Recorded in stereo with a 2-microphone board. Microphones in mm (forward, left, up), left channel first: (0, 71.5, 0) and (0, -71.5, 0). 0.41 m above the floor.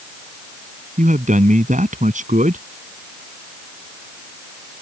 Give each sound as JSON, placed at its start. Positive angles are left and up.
{"t": 1.0, "sound": "a man speaking", "side_deg": -65}